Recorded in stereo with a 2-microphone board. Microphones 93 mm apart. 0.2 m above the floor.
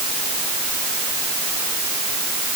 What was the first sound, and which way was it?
Only background noise.